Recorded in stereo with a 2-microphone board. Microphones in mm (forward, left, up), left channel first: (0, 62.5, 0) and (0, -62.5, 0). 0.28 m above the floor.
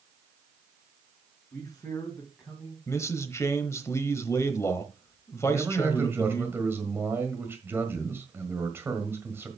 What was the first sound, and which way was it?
A man speaking, 10° left (ahead or behind).